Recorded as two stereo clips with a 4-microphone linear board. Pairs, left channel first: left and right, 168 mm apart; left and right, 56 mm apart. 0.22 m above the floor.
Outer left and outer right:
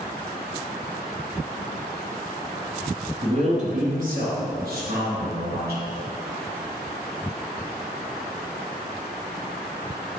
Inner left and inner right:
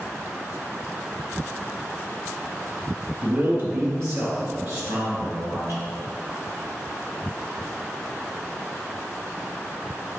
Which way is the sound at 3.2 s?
40° right (ahead or behind).